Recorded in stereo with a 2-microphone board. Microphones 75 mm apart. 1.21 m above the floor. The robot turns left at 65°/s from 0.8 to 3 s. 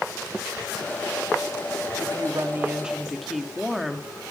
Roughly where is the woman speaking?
Behind right.